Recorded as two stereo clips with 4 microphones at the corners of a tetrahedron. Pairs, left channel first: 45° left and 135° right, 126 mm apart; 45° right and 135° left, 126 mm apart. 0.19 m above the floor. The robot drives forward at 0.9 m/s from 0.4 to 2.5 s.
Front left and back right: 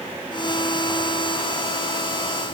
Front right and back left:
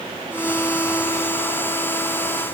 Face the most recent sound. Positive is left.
No sound to turn to.